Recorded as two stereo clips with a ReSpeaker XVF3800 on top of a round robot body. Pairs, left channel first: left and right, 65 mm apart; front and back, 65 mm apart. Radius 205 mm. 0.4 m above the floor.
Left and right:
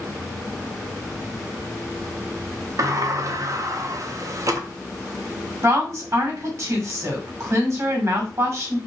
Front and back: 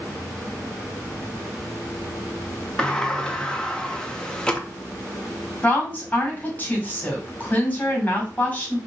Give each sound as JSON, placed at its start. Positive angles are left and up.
{"t": 2.8, "sound": "a sliding door", "azimuth_deg": -75, "distance_m": 0.8}
{"t": 5.6, "sound": "a woman speaking", "azimuth_deg": -55, "distance_m": 1.8}